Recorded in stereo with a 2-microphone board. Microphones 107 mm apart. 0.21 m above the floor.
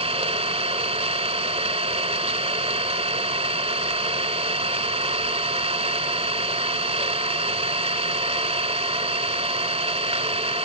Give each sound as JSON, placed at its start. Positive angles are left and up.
{"t": 0.0, "sound": "an engine running", "side_deg": -70, "distance_m": 1.0}